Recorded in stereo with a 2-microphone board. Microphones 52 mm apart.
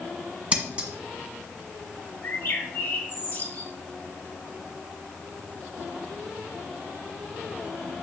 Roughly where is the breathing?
I don't hear breathing.